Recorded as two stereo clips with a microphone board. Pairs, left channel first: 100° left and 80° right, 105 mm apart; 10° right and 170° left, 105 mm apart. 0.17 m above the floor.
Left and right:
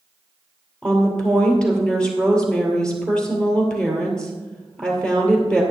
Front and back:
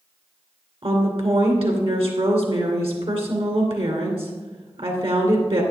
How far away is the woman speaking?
About 2.5 m.